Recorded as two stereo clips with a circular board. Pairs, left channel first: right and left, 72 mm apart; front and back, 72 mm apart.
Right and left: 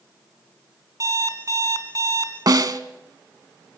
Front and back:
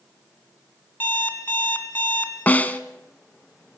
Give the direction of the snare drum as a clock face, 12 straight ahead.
10 o'clock.